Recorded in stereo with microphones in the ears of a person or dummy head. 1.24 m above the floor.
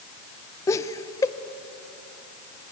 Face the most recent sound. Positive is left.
turn(degrees=15)  # may be behind; listen again after turning